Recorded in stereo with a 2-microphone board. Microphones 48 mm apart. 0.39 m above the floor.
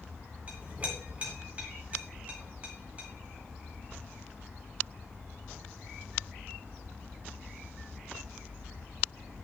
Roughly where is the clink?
Right.